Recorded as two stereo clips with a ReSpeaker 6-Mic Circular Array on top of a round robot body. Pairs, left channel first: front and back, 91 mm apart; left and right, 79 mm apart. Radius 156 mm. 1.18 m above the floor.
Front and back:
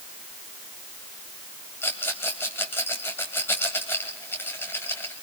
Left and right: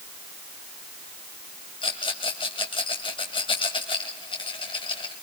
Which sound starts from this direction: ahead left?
A rattle, at 1.8 s.